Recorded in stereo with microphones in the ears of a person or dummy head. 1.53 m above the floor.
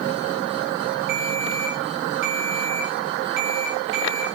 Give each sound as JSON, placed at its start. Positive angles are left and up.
{"t": 1.1, "sound": "a ringtone", "side_deg": -60, "distance_m": 0.9}